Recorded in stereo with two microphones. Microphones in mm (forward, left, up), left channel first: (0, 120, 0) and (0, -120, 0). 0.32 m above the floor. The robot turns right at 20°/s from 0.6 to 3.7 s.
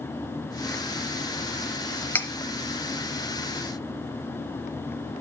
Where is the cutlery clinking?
5° left (ahead or behind), 0.8 m; by 2.3 s 10° left (ahead or behind), 0.8 m.